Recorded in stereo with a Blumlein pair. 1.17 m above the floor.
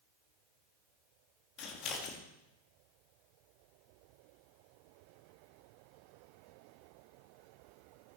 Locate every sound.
1.6 s scissors: 35° left, 1.7 m